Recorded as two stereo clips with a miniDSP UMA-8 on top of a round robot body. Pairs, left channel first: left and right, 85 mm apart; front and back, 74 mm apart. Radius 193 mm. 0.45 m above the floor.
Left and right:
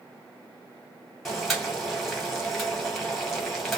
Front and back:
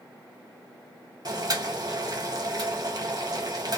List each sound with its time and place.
1.2 s boiling: straight behind, 2 m